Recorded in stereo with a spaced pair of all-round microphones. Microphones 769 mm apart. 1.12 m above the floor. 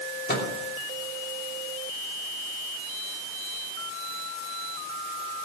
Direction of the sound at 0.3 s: 15° left (ahead or behind).